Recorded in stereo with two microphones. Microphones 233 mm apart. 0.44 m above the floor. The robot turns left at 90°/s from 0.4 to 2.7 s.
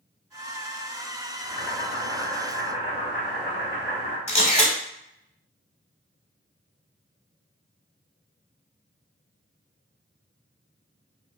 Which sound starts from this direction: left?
A camera shutter, at 4.3 s.